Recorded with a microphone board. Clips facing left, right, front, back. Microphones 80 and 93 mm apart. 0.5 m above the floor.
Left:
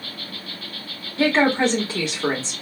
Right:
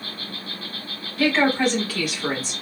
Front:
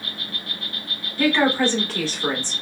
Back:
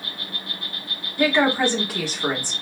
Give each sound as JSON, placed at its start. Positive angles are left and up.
{"t": 0.0, "sound": "an insect", "azimuth_deg": -120, "distance_m": 2.0}
{"t": 1.2, "sound": "a woman speaking", "azimuth_deg": 110, "distance_m": 1.0}